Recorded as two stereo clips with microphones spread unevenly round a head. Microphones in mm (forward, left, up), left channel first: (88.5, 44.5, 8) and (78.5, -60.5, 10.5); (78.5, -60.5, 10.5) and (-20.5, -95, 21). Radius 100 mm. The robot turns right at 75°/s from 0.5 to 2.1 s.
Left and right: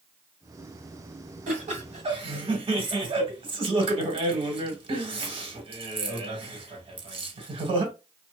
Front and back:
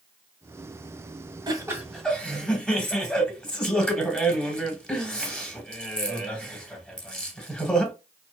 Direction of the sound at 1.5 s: 110° right.